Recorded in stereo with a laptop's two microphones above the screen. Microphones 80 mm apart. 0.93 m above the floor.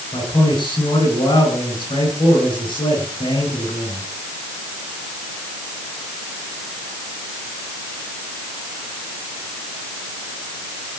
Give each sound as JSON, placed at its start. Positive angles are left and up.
{"t": 0.1, "sound": "a man speaking", "side_deg": 85, "distance_m": 9.5}